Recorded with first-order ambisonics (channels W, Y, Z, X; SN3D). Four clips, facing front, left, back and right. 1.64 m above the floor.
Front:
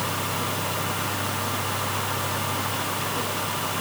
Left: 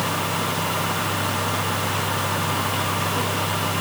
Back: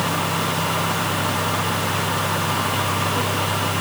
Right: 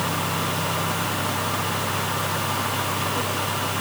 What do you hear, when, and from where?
Only background noise.